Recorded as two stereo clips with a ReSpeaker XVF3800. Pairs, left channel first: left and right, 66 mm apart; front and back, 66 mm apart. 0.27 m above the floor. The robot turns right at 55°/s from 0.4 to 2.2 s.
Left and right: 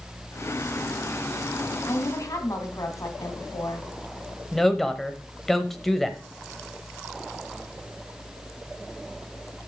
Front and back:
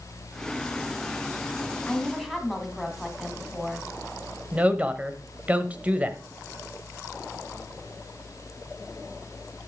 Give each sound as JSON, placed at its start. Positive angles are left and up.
{"t": 1.9, "sound": "a woman speaking", "azimuth_deg": 70, "distance_m": 2.0}
{"t": 4.5, "sound": "a woman speaking", "azimuth_deg": 170, "distance_m": 0.9}